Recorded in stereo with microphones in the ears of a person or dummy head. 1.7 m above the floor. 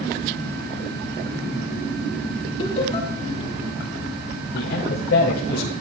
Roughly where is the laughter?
Left.